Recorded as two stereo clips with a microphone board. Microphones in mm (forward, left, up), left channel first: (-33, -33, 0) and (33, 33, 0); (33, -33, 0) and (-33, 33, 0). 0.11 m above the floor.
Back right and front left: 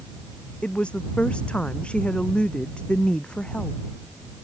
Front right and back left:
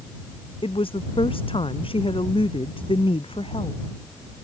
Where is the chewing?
I don't hear chewing.